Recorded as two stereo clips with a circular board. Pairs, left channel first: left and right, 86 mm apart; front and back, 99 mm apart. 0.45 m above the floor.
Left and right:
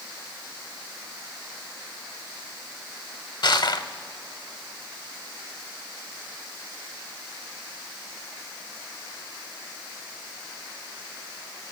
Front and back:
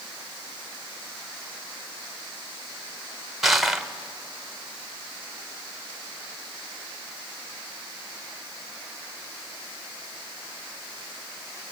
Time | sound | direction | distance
3.4 | crushing | 90° left | 0.8 m